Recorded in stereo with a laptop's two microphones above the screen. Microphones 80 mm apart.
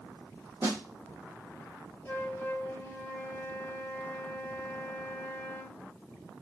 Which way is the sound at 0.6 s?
35° right (ahead or behind).